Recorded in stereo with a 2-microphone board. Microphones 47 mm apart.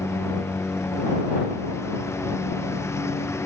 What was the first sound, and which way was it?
A lawn mower, 85° left.